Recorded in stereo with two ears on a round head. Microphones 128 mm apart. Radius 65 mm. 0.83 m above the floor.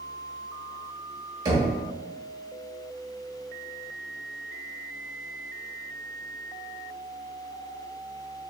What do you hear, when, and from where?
1.4 s knocking: 30° right (ahead or behind), 1.0 m